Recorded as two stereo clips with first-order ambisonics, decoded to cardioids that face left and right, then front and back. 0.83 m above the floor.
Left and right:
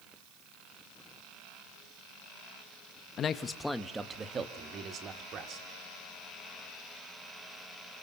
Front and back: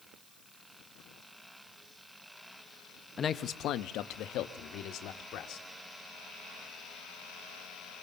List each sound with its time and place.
3.2 s a man speaking: 55° left, 1.1 m; by 5.7 s 40° right, 3 m